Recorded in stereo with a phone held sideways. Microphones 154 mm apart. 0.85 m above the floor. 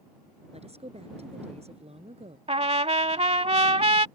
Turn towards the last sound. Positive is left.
turn(degrees=-40)  # may be behind; listen again after turning